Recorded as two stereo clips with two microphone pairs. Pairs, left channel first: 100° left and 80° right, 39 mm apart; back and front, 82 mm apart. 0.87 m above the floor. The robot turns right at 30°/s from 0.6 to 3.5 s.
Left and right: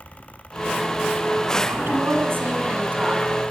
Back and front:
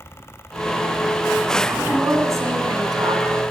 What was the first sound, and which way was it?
A woman speaking, 75° right.